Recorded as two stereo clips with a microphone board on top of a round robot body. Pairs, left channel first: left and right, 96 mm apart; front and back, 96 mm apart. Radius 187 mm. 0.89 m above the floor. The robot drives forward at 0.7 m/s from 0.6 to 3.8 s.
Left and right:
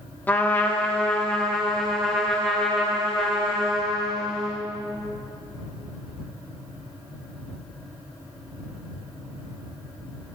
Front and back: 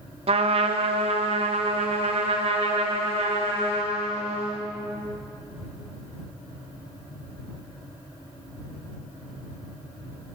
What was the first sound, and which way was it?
A trumpet, 165° left.